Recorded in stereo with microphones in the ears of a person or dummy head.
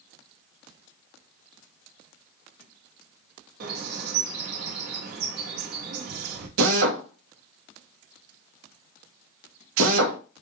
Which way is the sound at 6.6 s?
80° right.